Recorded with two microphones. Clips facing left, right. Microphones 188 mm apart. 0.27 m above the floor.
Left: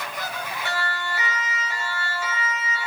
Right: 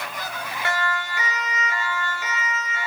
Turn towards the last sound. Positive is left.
turn(degrees=-70)  # may be behind; listen again after turning